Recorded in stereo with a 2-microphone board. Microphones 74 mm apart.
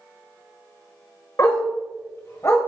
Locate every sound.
1.4 s a dog barking: 45° left (ahead or behind), 1.6 m; by 2.6 s 40° left (ahead or behind), 1.9 m